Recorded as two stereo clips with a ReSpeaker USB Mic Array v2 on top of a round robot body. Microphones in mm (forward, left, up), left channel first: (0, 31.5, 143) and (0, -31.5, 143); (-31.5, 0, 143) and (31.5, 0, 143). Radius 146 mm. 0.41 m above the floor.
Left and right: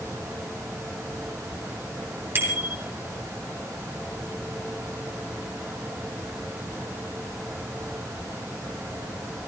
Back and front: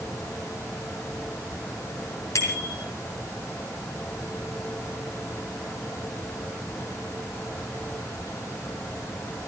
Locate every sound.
2.4 s a bicycle bell: 145° right, 5 m